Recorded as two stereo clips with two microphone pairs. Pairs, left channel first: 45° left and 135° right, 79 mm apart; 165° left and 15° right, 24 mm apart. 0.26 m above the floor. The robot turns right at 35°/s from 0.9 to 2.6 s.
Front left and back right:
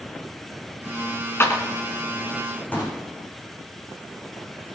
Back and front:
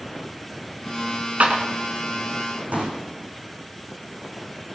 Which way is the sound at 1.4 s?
10° right.